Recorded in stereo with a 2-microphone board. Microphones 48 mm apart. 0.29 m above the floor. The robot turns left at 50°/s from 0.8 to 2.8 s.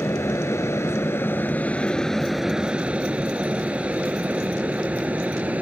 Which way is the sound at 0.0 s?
70° left (ahead or behind).